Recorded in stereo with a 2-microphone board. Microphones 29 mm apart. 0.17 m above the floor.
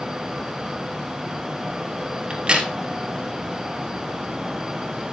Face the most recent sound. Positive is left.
turn(degrees=-35)  # may be behind; listen again after turning